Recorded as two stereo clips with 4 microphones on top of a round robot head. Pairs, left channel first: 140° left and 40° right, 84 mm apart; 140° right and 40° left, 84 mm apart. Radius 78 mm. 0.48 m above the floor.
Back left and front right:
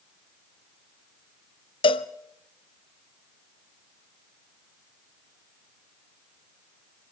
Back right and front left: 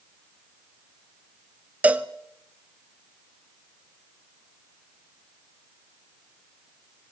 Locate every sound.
1.8 s a cowbell: 115° left, 1.1 m